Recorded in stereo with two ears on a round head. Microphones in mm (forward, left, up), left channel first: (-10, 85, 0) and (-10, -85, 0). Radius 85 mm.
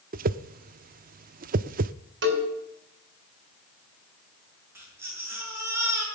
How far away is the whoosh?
About 0.5 m.